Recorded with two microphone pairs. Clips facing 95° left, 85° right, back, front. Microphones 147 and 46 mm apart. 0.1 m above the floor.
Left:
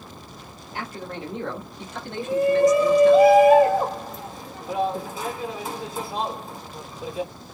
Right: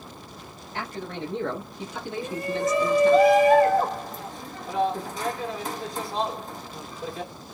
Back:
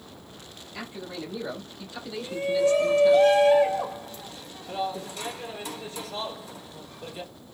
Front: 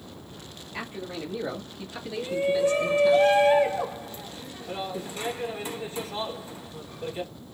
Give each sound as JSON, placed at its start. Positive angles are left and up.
{"t": 0.7, "sound": "a man speaking", "azimuth_deg": 25, "distance_m": 1.5}
{"t": 2.2, "sound": "a shout", "azimuth_deg": 25, "distance_m": 1.2}